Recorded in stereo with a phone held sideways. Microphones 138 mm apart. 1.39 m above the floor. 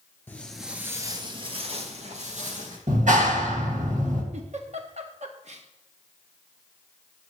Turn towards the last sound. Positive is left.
turn(degrees=-55)  # may be behind; listen again after turning